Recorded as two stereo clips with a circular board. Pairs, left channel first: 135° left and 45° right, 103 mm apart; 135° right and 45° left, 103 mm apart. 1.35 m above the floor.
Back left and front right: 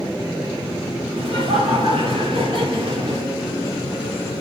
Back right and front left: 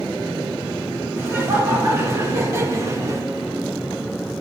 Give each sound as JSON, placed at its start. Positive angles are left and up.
{"t": 1.2, "sound": "laughter", "azimuth_deg": -20, "distance_m": 4.0}